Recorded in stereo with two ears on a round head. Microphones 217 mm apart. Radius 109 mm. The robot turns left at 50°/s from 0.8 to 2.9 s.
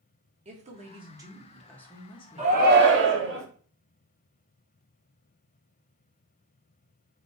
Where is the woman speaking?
140° right, 1.2 m; by 3.2 s 115° left, 1.2 m.